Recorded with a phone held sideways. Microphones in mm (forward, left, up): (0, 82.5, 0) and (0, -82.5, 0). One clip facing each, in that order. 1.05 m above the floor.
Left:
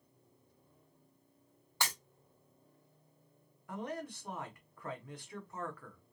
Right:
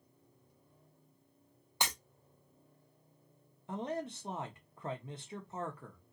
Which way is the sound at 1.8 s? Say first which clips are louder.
Right 1 dB; 20° right (ahead or behind).